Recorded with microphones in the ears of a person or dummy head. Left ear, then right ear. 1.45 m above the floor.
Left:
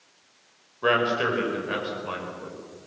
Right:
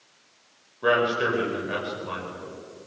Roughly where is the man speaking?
Centre.